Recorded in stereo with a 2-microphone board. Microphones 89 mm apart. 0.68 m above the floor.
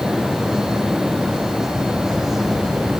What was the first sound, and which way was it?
Only background noise.